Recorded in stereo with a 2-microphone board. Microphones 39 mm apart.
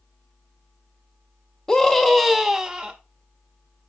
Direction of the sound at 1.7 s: 20° left (ahead or behind).